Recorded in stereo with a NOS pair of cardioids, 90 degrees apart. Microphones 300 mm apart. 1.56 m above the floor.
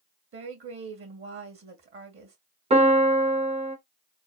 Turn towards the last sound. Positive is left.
turn(degrees=-20)